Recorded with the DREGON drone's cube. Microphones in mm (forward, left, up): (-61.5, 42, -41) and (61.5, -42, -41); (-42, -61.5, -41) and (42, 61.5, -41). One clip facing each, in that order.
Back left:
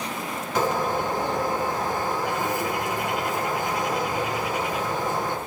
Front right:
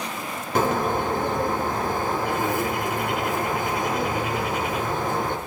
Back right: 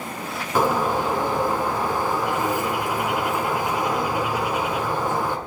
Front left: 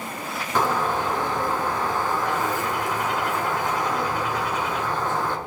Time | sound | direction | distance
0.6 | a bird | 45° right | 1.9 m